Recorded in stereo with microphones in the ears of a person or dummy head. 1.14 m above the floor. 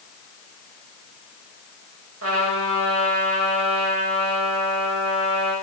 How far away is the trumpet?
About 6 m.